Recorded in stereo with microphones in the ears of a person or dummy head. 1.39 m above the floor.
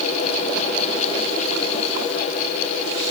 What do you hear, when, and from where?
Only background noise.